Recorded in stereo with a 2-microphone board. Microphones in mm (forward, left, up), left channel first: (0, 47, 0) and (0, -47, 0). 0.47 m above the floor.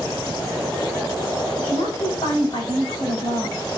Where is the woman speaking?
60° left (ahead or behind), 2.5 m.